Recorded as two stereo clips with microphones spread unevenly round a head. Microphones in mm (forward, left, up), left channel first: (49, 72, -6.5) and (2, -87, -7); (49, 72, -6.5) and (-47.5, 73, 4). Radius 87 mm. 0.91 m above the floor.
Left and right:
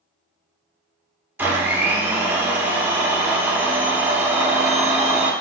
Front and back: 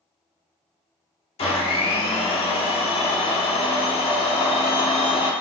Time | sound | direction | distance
1.4 | a blender | 30° right | 0.6 m